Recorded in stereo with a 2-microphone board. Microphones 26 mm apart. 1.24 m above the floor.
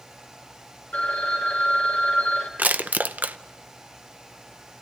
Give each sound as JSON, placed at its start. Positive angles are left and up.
{"t": 0.9, "sound": "a phone ringing", "side_deg": 60, "distance_m": 3.0}
{"t": 2.6, "sound": "crushing", "side_deg": -80, "distance_m": 0.6}